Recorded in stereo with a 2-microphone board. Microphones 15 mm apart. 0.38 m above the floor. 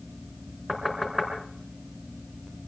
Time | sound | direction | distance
0.7 | knocking | 10° right (ahead or behind) | 4.5 m